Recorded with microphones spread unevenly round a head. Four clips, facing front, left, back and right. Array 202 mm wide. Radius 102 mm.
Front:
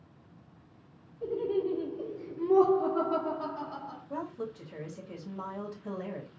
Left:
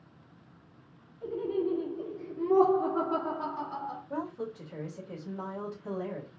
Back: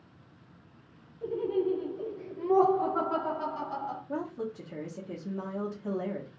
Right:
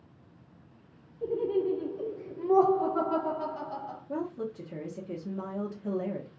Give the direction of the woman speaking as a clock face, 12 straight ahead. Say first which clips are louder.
Right 4 dB, front 1 dB; 4 o'clock.